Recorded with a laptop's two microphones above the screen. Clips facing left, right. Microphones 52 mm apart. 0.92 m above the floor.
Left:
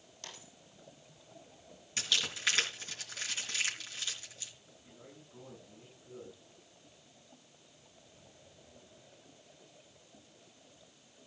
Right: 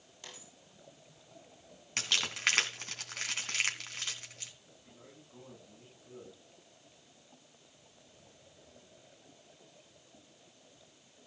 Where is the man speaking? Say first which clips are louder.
Left 2 dB; 15° right (ahead or behind), 7.5 m.